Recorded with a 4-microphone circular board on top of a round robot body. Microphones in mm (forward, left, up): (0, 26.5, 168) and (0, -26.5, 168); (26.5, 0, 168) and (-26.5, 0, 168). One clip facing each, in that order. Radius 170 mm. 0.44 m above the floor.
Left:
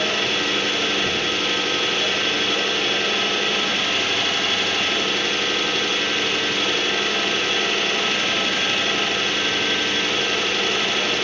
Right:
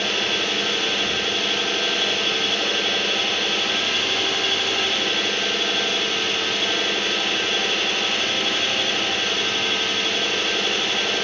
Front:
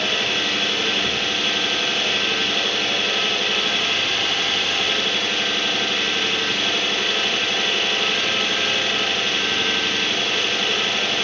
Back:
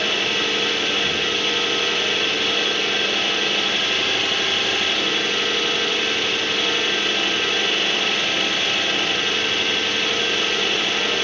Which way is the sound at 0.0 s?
95° left.